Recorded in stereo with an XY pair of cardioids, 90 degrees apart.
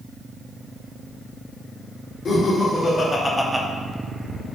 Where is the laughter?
60° left, 1.1 m; by 3.6 s 35° right, 0.5 m.